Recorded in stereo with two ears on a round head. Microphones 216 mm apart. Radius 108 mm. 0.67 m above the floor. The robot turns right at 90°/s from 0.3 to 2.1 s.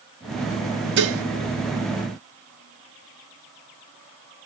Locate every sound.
1.0 s dishes clattering: 45° right (ahead or behind), 0.6 m; by 1.2 s 65° right (ahead or behind), 0.6 m